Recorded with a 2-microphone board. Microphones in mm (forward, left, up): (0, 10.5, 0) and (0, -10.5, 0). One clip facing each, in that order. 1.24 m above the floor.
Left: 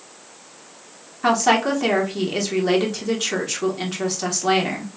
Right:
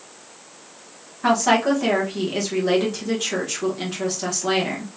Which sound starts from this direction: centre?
A woman speaking, at 1.2 s.